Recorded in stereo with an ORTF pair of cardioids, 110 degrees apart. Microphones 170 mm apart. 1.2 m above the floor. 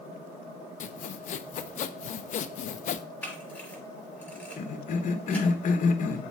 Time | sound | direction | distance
0.8 | sawing | 45° left | 0.7 m
3.2 | a camera shutter | 10° left | 4.5 m
4.6 | a cough | 50° left | 1.3 m